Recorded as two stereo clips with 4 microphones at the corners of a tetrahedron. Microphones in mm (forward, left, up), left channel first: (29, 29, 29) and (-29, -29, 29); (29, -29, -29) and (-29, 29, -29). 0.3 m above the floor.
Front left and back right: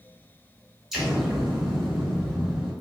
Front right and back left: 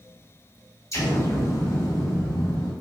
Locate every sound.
0.9 s an explosion: 50° right, 1.3 m